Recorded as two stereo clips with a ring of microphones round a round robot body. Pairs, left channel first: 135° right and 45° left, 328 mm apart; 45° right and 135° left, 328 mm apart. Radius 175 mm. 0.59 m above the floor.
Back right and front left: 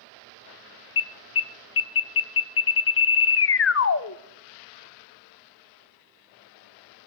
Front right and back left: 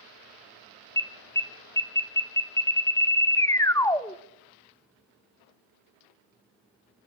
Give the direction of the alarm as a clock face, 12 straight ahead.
4 o'clock.